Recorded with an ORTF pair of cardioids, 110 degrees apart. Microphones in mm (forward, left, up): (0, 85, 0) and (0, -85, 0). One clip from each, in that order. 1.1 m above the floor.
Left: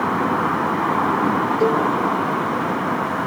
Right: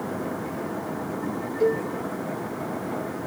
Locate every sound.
1.6 s a cowbell: 30° left, 0.9 m